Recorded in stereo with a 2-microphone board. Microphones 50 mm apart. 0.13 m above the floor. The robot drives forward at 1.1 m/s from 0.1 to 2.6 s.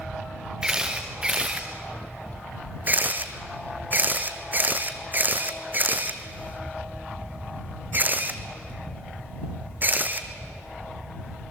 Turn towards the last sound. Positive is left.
turn(degrees=-40)  # may be behind; listen again after turning